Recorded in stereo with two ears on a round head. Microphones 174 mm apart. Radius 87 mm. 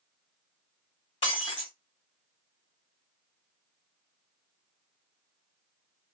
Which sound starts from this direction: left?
Breaking glass, at 1.2 s.